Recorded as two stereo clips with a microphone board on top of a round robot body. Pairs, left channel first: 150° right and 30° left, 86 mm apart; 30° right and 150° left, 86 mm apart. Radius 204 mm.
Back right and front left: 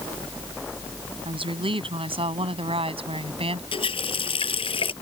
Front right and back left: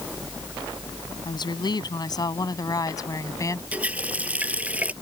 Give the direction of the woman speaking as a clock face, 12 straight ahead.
12 o'clock.